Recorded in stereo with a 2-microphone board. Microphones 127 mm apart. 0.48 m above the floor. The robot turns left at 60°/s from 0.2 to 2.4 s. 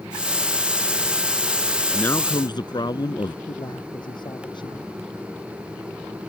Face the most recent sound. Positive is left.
turn(degrees=35)  # may be behind; listen again after turning